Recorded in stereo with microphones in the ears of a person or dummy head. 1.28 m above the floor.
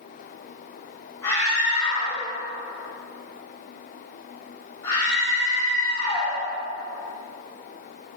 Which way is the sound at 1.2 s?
15° left (ahead or behind).